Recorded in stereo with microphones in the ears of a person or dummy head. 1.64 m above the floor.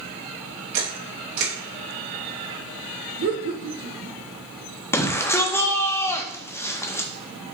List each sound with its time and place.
0.7 s a camera shutter: 65° right (ahead or behind), 1.9 m
3.2 s laughter: 60° right (ahead or behind), 0.9 m
4.9 s a shout: 15° left (ahead or behind), 0.6 m